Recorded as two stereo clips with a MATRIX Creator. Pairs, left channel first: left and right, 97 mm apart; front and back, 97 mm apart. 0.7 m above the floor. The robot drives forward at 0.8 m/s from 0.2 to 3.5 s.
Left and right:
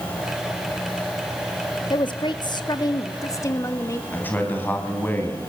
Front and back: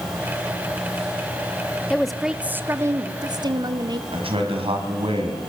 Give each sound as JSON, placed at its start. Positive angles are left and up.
{"t": 1.9, "sound": "a woman speaking", "azimuth_deg": 80, "distance_m": 1.1}
{"t": 4.1, "sound": "a man speaking", "azimuth_deg": 160, "distance_m": 4.0}